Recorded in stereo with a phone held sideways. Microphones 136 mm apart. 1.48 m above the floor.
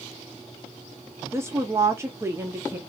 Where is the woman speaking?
20° right (ahead or behind), 0.5 m.